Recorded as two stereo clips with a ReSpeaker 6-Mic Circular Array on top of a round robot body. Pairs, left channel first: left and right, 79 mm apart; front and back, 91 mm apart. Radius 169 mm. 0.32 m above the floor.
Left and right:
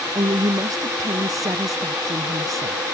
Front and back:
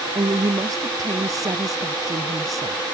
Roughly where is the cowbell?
I don't hear a cowbell.